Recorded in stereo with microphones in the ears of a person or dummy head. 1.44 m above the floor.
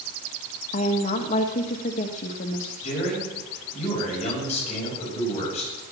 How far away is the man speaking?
About 6.5 m.